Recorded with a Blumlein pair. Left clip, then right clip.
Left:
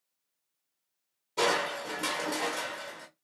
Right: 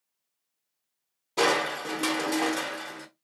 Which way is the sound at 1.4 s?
20° right.